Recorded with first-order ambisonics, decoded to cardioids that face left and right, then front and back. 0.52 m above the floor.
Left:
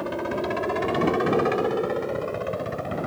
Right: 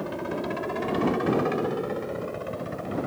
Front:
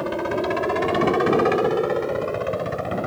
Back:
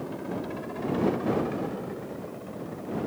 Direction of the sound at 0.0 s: 20° left.